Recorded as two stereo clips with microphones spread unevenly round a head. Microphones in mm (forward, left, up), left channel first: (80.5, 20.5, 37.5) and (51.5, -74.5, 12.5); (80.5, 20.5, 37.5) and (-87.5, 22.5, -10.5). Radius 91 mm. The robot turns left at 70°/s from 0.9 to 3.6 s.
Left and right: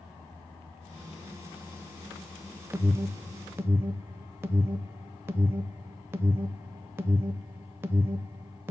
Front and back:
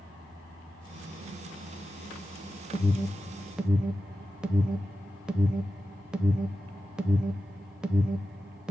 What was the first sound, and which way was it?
An alarm, 60° right.